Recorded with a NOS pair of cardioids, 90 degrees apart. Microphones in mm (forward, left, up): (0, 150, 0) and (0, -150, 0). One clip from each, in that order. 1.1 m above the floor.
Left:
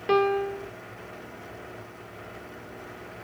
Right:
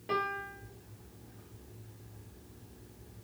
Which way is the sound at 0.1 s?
60° left.